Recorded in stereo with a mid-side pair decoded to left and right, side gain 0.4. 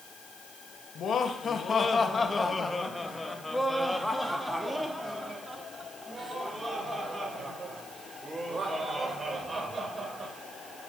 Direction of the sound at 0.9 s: 60° left.